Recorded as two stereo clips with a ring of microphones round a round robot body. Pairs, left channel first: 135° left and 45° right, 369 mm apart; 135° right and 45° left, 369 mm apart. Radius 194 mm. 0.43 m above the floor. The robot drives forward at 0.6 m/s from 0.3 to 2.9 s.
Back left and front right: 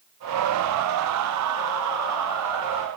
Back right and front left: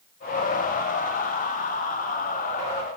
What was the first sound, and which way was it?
Only background noise.